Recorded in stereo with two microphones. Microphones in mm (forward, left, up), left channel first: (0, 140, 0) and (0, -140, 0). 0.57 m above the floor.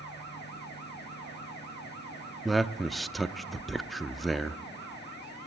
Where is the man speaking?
Centre (ahead or behind), 0.6 m.